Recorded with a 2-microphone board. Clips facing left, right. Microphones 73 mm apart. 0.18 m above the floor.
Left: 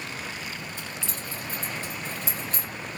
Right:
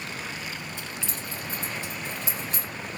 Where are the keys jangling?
15° right (ahead or behind), 3 m.